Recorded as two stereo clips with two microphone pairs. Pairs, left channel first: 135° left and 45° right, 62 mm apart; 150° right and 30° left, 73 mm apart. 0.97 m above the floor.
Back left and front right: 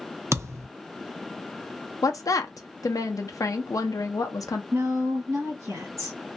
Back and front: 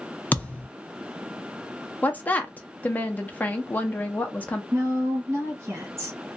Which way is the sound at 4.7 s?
10° right.